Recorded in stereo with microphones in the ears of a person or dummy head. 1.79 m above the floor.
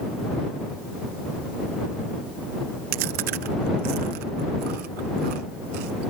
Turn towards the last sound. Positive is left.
turn(degrees=-55)  # may be behind; listen again after turning